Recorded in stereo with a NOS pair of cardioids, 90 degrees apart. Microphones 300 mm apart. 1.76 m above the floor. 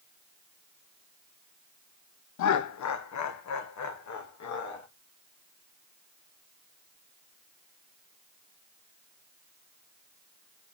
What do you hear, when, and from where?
2.4 s laughter: 70° left, 1.0 m; by 4.9 s 65° left, 3.5 m